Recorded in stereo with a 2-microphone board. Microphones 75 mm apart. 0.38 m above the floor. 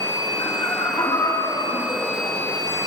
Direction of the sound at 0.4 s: 65° left (ahead or behind).